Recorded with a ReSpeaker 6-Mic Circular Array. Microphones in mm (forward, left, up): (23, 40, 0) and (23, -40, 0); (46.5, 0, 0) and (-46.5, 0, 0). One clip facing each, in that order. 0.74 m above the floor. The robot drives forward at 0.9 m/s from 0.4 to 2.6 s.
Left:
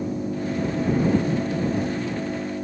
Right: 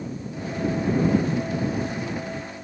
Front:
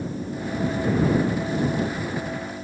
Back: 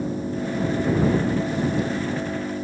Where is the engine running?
120° left; by 2.6 s 125° left.